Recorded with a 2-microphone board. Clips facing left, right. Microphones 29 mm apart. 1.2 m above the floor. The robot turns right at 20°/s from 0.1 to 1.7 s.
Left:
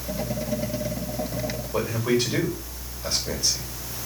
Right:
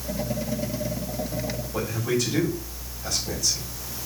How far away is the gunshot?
I don't hear a gunshot.